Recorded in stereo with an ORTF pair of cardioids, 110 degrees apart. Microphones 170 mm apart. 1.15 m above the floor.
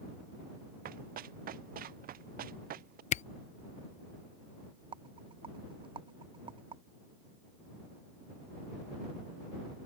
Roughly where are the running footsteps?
Ahead right.